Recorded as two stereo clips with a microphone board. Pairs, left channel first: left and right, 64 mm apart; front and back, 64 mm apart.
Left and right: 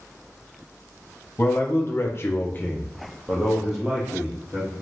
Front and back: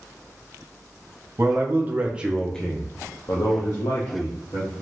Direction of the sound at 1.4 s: 135° left.